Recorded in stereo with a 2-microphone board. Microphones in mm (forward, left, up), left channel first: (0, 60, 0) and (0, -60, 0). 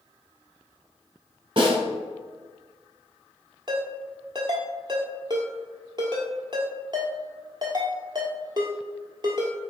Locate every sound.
1.6 s a snare drum: 45° right (ahead or behind), 1.6 m
3.7 s a ringtone: 40° right (ahead or behind), 1.2 m